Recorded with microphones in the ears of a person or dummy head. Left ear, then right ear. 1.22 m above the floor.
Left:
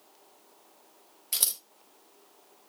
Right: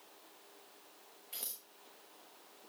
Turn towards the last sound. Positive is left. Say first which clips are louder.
# left 16 dB
turn(degrees=55)  # may be behind; listen again after turning